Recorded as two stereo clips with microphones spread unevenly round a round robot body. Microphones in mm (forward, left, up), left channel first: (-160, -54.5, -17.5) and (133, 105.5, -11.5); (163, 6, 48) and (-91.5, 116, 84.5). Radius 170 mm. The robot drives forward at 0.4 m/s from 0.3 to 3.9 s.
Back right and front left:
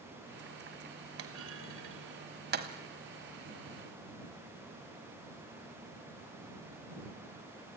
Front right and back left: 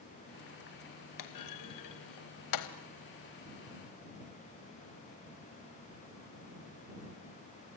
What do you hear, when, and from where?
1.2 s a clunk: 25° right, 1.8 m; by 2.7 s 35° right, 1.3 m